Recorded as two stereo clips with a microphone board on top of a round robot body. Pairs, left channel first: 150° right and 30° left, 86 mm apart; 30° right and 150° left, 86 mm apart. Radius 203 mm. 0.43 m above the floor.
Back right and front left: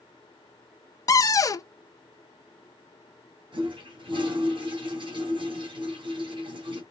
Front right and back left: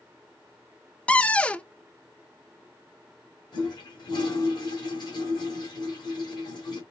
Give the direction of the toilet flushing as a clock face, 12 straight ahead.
12 o'clock.